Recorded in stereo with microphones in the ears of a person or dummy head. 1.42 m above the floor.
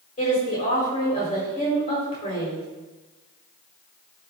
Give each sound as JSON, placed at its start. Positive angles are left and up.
{"t": 0.2, "sound": "a woman speaking", "side_deg": 30, "distance_m": 5.0}